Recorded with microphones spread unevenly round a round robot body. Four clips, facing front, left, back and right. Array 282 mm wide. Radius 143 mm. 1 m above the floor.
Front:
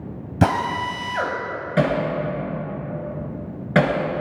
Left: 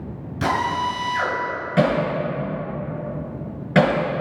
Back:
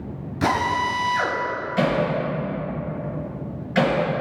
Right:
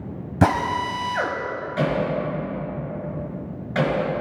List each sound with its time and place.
0.4 s a drill: 40° right, 3 m
1.8 s hammering: 40° left, 6 m